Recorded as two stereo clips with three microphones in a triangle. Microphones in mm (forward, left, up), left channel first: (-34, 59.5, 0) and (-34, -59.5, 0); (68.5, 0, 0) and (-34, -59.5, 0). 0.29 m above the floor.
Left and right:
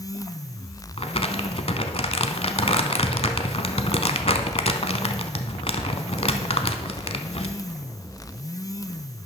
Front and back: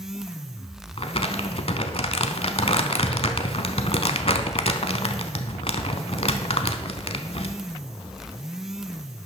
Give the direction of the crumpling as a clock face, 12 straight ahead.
10 o'clock.